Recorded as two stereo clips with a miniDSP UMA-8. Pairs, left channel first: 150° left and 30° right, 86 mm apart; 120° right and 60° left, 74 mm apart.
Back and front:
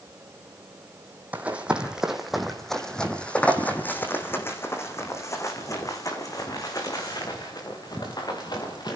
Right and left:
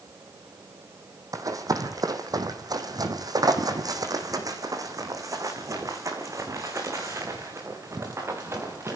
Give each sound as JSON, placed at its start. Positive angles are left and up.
{"t": 1.3, "sound": "running footsteps", "azimuth_deg": 35, "distance_m": 2.5}